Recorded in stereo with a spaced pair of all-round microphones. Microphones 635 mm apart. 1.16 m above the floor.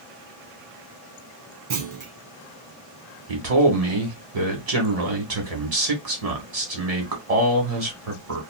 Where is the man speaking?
65° right (ahead or behind), 1.4 m.